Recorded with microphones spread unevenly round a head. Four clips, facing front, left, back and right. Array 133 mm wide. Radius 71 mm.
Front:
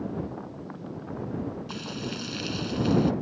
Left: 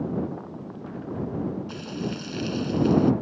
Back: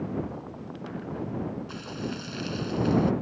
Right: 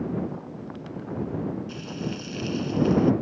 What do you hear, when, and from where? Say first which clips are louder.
1.7 s frying: left 1 dB, even; 30° left